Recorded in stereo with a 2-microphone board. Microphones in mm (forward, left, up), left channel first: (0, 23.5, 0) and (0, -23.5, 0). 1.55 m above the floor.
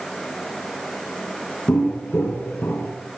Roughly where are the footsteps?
Left.